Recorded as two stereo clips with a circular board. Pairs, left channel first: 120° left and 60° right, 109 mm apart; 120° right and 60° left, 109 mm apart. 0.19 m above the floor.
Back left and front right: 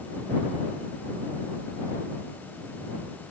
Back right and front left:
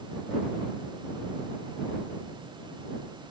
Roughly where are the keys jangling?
No keys jangling in this recording.